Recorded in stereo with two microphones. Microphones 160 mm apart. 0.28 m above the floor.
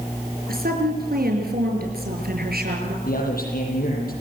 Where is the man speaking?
70° left (ahead or behind), 8.5 m.